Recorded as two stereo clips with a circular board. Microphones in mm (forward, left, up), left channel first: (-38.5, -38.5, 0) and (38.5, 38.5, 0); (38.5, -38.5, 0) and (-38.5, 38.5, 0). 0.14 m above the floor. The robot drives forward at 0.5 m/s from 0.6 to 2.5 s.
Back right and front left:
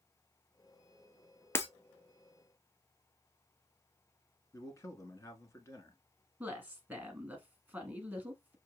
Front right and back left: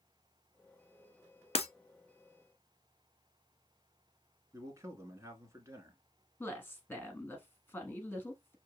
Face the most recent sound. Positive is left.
turn(degrees=-5)